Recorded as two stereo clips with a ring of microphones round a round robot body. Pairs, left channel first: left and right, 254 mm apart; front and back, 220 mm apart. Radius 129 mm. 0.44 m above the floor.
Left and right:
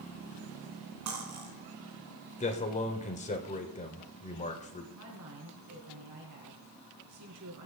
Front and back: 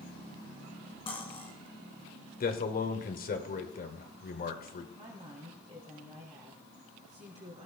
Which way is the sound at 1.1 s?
70° right.